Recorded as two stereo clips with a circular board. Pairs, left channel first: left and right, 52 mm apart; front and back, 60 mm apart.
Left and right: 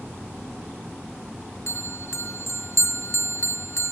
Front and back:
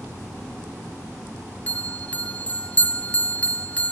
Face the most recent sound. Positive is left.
turn(degrees=65)